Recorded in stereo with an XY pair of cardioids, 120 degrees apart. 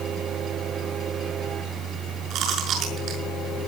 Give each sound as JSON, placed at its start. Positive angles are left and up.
{"t": 0.0, "sound": "a machine running", "azimuth_deg": -55, "distance_m": 6.5}
{"t": 2.3, "sound": "chewing", "azimuth_deg": -65, "distance_m": 6.0}